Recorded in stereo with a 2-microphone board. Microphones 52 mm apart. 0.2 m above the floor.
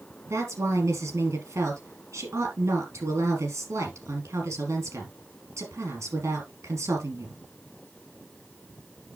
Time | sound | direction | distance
0.3 | a woman speaking | 75° right (ahead or behind) | 4 m